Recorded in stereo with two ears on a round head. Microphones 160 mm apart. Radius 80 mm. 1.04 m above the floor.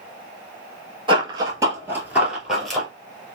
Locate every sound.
1.1 s running footsteps: 30° right (ahead or behind), 1.1 m; by 2.9 s 5° left (ahead or behind), 1.5 m